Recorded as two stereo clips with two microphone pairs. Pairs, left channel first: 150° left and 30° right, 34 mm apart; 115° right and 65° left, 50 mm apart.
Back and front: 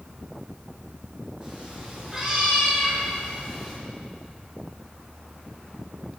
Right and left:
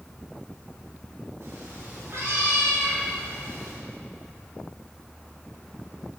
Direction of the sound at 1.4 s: 45° left.